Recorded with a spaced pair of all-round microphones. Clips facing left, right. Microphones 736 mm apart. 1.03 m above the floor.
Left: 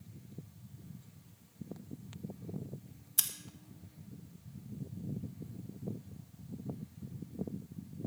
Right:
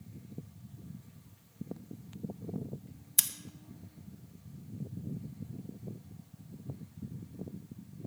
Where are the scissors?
55° right (ahead or behind), 0.7 m.